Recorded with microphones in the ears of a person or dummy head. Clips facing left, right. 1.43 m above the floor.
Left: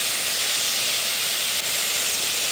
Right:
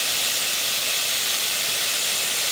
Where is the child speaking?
I don't hear a child speaking.